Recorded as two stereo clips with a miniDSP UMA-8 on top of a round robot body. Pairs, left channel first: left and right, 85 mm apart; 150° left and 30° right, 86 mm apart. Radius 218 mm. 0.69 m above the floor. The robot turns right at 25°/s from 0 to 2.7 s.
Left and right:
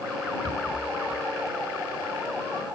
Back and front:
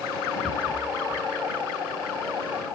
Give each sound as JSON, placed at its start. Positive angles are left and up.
{"t": 0.4, "sound": "a rattle", "azimuth_deg": -120}